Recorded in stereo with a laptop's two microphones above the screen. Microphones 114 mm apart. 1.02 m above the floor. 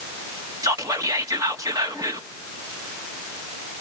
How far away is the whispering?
About 1.5 m.